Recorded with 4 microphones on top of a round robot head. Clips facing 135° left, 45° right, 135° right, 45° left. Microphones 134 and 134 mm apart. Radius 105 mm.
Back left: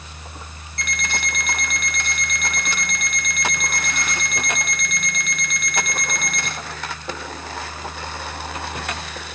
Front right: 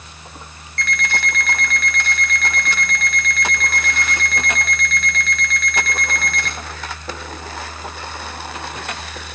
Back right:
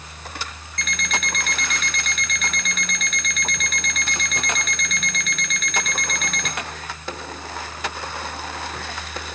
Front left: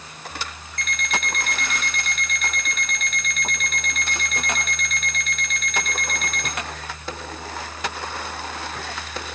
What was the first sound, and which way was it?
An alarm clock, 150° right.